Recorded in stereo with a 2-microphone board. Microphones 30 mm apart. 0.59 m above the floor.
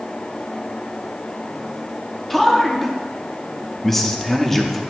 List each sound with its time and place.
2.3 s a man speaking: 10° left (ahead or behind), 0.7 m